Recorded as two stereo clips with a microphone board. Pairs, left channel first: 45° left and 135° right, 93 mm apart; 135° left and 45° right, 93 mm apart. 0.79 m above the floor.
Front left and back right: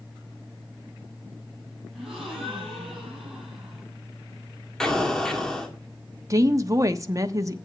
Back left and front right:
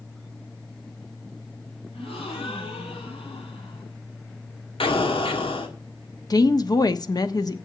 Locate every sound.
1.9 s a gasp: 140° left, 7 m
4.8 s an explosion: 130° left, 2 m
6.3 s a woman speaking: 175° left, 1.1 m